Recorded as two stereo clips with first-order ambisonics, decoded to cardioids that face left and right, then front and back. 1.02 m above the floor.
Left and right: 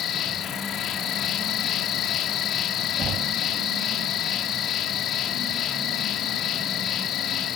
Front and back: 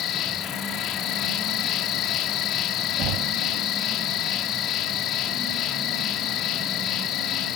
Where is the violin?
I don't hear a violin.